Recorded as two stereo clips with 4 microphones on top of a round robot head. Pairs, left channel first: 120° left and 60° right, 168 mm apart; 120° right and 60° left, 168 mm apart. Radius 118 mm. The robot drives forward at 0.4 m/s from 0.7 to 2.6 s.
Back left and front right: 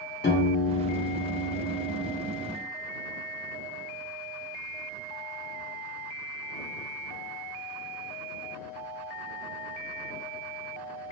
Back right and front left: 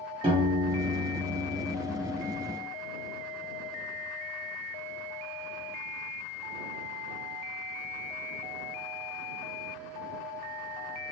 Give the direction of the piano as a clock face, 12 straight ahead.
8 o'clock.